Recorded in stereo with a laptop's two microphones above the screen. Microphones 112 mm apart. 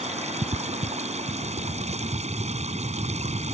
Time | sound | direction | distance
0.0 | running water | 85° right | ?